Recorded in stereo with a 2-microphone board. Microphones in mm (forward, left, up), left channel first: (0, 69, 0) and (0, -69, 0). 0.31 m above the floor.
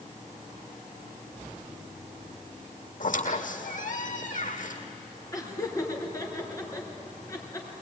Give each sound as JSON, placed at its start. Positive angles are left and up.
{"t": 3.0, "sound": "a squeak", "side_deg": 70, "distance_m": 2.0}
{"t": 5.3, "sound": "laughter", "side_deg": 25, "distance_m": 4.0}